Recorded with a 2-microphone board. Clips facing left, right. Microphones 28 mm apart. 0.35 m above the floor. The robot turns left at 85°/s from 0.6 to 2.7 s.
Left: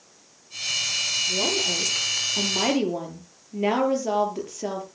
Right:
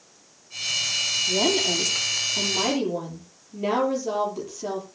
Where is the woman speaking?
120° right, 6.5 m; by 4.8 s 120° left, 6.5 m.